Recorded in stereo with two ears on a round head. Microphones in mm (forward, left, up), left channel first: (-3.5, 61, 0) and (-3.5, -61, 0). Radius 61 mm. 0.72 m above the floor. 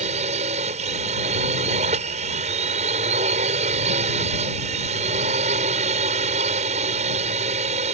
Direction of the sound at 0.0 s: 55° right (ahead or behind).